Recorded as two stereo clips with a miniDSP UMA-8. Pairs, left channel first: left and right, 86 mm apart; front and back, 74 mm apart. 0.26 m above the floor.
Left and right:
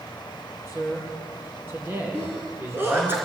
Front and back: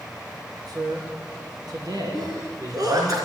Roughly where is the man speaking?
Behind right.